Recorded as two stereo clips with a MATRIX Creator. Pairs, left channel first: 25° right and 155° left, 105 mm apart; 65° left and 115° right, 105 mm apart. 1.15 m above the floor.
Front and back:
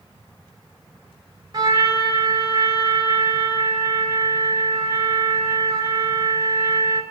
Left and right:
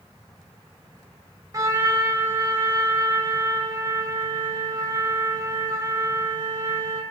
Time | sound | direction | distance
1.5 | a trumpet | 170° right | 1.6 m